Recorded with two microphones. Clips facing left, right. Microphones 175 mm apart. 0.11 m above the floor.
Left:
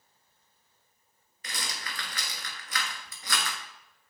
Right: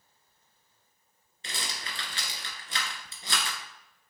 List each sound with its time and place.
1.4 s a rattle: 30° right (ahead or behind), 1.0 m